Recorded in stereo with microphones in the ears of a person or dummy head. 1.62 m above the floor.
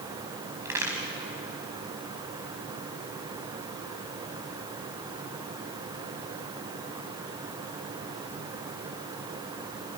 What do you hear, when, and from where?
0.7 s a crack: 15° right (ahead or behind), 4.5 m